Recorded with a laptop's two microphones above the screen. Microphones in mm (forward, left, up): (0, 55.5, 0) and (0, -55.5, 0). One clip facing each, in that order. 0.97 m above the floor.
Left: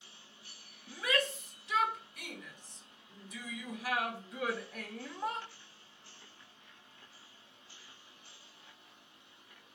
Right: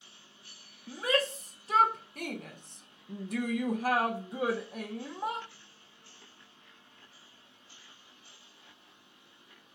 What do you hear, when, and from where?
0.9 s a shout: 35° right (ahead or behind), 1.5 m; by 5.5 s 15° right (ahead or behind), 1.3 m